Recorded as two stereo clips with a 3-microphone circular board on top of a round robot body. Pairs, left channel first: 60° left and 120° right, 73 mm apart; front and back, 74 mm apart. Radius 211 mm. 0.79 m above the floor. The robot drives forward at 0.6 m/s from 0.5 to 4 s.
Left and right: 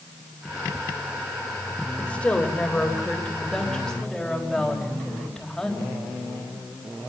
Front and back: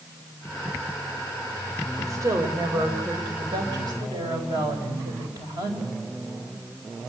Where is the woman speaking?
135° left, 3.5 m; by 5.9 s 145° left, 4 m.